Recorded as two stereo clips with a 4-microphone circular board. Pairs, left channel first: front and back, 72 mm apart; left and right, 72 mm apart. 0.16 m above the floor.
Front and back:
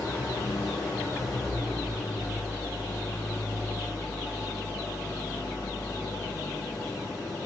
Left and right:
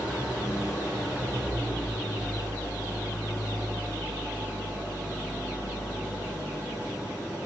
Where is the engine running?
40° left, 3 m.